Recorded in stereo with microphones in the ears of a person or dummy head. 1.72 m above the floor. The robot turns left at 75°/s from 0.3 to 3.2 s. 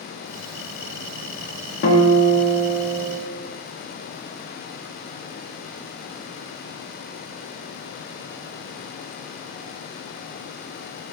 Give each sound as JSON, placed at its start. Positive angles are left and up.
{"t": 1.8, "sound": "a guitar", "azimuth_deg": 75, "distance_m": 0.6}